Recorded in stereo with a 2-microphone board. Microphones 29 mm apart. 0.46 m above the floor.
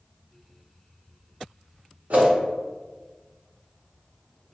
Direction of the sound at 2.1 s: 70° right (ahead or behind).